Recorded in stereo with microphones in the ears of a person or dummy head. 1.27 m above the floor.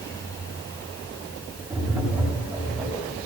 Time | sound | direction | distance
1.7 | tapping | 5° right (ahead or behind) | 9 m